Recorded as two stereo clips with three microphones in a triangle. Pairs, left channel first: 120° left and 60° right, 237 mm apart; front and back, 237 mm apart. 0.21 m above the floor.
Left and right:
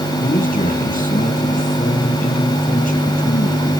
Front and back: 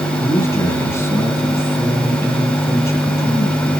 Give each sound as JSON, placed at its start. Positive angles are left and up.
{"t": 0.2, "sound": "a man speaking", "azimuth_deg": 75, "distance_m": 2.5}